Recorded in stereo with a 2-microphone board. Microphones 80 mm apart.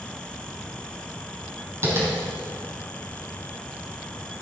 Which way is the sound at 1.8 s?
35° right (ahead or behind).